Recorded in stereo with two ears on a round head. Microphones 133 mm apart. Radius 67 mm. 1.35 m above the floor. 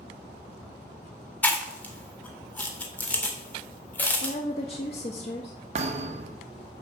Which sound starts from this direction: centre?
Chewing, at 1.4 s.